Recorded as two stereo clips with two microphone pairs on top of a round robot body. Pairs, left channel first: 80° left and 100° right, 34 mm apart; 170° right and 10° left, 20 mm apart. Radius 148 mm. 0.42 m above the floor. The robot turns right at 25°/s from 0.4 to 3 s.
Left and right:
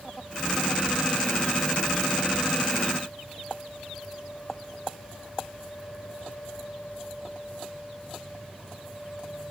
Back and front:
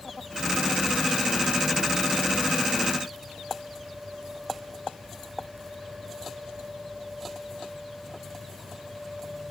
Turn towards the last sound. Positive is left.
No sound to turn to.